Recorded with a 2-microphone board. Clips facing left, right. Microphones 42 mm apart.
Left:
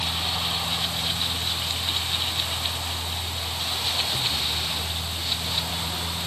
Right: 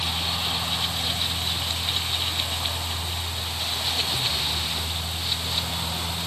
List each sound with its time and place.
Only background noise.